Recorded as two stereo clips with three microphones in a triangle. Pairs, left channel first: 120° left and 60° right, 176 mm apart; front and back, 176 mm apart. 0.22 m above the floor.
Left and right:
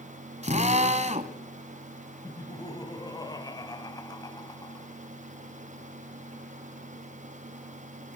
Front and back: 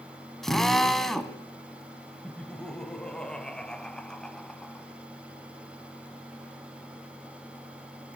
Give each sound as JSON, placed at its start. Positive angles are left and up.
{"t": 0.4, "sound": "a drill", "azimuth_deg": -85, "distance_m": 1.8}
{"t": 2.2, "sound": "laughter", "azimuth_deg": 80, "distance_m": 1.0}